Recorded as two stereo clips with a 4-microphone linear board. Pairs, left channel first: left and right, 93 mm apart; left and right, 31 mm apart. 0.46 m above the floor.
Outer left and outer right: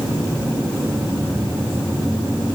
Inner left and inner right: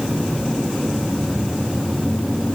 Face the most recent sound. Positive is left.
No sound to turn to.